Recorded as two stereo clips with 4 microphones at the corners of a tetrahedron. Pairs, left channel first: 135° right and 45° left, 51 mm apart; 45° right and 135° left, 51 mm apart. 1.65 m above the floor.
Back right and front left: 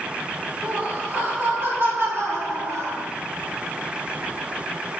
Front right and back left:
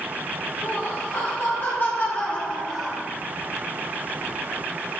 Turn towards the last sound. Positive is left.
turn(degrees=50)